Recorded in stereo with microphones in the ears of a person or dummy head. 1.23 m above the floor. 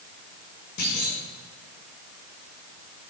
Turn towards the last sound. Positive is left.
turn(degrees=60)  # may be behind; listen again after turning